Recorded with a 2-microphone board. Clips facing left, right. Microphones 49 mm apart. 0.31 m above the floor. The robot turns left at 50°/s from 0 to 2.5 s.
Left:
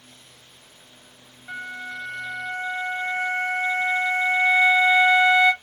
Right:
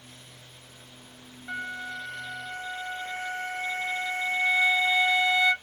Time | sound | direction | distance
1.5 | a flute | 175° left | 1.3 m